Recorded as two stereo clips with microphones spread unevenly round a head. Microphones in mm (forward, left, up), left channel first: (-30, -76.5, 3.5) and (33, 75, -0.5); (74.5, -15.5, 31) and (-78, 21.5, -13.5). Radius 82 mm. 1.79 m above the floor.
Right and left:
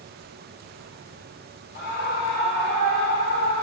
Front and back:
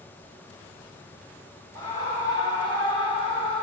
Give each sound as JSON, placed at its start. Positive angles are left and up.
{"t": 1.8, "sound": "a scream", "azimuth_deg": -80, "distance_m": 1.3}